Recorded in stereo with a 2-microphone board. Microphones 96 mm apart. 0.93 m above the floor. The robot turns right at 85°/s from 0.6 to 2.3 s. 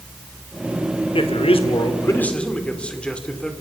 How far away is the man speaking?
About 2 m.